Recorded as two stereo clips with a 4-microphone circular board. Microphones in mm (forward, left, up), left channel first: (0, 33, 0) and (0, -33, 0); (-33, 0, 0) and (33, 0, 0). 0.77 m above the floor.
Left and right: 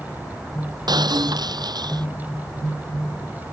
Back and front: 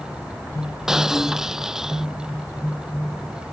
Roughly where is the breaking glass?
Right.